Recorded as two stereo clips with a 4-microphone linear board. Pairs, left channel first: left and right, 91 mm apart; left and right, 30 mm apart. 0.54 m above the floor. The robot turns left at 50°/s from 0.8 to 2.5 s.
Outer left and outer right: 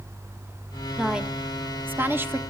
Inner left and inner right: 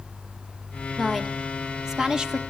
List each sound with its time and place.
1.0 s a woman speaking: 5° right (ahead or behind), 1.1 m; by 2.4 s 25° right (ahead or behind), 1.1 m